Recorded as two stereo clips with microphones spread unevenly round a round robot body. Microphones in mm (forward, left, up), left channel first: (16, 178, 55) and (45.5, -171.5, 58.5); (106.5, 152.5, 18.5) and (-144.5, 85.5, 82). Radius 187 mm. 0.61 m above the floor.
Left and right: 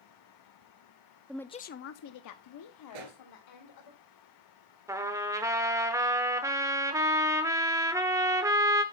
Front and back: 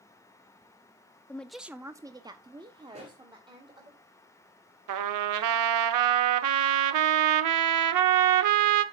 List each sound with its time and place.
1.3 s a woman speaking: 5° right, 0.5 m; by 3.9 s 120° left, 2.0 m
2.9 s a pop: 95° right, 2 m
4.9 s a trumpet: 165° right, 0.7 m